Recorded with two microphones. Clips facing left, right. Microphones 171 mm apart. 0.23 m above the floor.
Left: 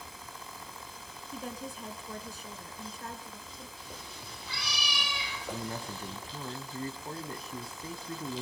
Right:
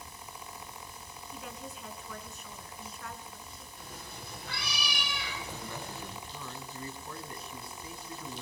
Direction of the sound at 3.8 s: 60° right (ahead or behind).